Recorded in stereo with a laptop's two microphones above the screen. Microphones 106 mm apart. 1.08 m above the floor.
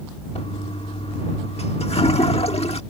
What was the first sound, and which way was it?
A toilet flushing, 70° left (ahead or behind).